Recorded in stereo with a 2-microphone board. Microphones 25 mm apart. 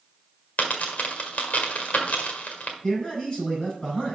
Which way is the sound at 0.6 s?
70° left (ahead or behind).